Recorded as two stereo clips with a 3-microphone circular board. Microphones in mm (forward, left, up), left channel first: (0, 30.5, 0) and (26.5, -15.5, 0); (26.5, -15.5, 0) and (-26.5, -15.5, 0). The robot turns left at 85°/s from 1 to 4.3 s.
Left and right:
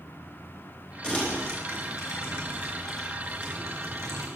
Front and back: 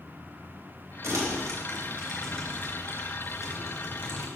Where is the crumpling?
165° right, 3 m; by 4.3 s 80° right, 3 m.